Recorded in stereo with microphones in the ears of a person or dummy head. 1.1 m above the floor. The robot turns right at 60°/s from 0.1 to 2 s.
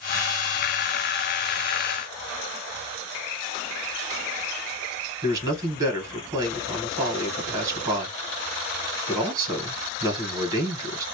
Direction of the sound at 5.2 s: 25° right (ahead or behind).